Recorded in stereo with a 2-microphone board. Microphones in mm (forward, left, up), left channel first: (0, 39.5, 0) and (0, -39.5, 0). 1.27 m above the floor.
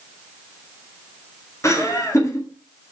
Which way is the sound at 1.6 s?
40° left (ahead or behind).